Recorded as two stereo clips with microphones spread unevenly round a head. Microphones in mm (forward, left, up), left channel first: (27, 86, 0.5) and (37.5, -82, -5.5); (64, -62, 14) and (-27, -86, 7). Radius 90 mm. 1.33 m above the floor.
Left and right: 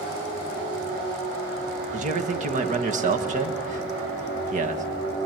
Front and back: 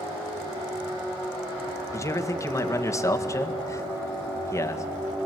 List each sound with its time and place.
1.9 s a man speaking: 45° right, 1.7 m